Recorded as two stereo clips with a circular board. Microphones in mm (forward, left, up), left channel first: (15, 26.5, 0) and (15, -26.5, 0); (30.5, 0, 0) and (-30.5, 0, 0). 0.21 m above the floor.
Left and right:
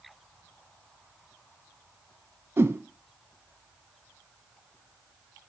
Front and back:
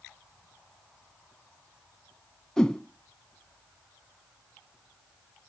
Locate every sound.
2.6 s a whoosh: 75° right, 0.5 m